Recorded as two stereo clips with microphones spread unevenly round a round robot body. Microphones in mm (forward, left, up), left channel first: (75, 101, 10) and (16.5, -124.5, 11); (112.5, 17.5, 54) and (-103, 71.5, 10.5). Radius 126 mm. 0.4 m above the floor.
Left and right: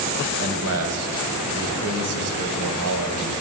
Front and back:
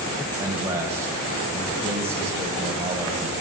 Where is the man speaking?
120° right, 1.8 m.